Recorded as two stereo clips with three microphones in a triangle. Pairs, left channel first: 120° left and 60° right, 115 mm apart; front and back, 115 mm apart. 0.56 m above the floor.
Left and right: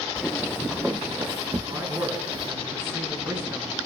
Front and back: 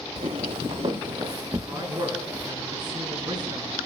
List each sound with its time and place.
0.2 s footsteps: 160° right, 1.9 m; by 2.5 s 105° right, 3 m
1.7 s a man speaking: 130° right, 6 m